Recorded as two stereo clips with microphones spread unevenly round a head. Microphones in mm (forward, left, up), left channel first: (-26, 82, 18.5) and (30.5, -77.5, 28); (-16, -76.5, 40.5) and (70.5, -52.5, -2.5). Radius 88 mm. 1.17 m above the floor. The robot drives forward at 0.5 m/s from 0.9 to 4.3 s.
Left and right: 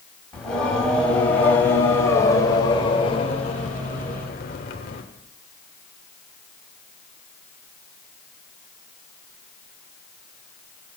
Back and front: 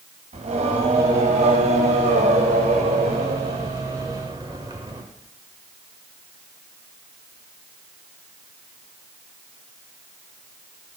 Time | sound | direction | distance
0.3 | singing | 25° left | 1.9 m